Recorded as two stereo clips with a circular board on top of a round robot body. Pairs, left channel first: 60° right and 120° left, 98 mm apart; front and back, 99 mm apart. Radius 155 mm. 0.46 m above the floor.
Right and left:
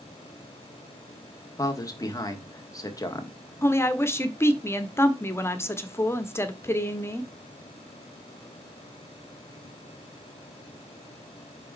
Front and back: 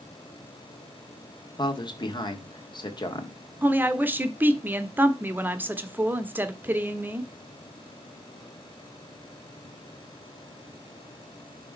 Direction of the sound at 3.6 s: 115° right.